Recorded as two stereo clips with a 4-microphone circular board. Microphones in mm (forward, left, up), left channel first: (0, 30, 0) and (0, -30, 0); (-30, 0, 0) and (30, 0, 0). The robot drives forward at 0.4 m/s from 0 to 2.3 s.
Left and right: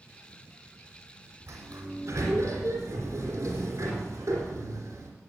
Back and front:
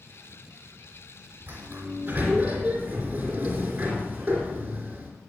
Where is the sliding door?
60° right, 3.5 m; by 5.1 s 70° right, 3.5 m.